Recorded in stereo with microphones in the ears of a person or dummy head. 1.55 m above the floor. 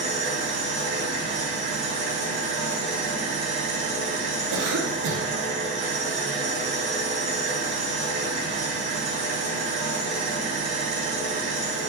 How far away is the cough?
About 0.8 m.